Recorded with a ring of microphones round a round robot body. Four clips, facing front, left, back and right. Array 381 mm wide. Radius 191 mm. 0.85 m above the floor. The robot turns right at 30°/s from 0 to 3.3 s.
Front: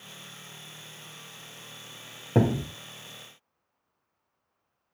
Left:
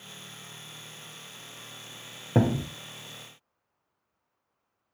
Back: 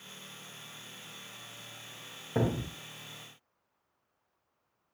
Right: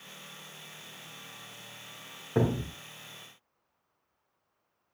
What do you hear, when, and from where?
2.4 s a thud: 55° left, 2 m; by 2.7 s 65° left, 2 m